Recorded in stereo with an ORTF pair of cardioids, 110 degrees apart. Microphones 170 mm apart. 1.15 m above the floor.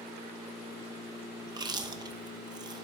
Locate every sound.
1.5 s chewing: 25° right, 0.8 m